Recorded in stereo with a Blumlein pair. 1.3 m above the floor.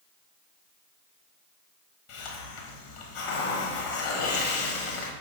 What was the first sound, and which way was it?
A hiss, 45° left.